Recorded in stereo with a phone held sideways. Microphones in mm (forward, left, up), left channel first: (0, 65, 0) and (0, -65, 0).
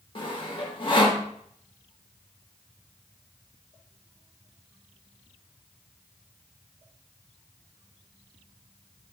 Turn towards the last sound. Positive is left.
turn(degrees=40)  # may be behind; listen again after turning